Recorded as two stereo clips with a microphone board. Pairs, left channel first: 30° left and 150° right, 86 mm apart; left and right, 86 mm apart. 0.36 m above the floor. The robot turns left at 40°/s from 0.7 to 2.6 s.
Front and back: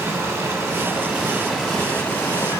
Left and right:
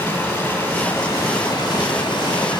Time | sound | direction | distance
0.0 | running water | 160° left | 2.0 m